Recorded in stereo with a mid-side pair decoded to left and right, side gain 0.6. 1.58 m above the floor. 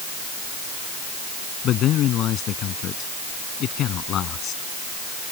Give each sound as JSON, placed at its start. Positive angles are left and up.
{"t": 1.6, "sound": "a man speaking", "azimuth_deg": 55}